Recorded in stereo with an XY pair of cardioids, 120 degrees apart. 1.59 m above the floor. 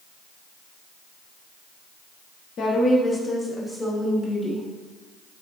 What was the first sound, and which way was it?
A woman speaking, 50° left.